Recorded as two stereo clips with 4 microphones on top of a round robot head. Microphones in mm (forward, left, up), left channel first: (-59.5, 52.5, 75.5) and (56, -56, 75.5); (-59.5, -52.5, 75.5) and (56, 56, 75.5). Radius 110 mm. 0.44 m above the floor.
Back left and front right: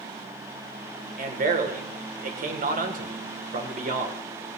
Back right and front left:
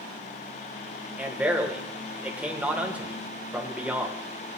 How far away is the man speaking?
About 2.5 m.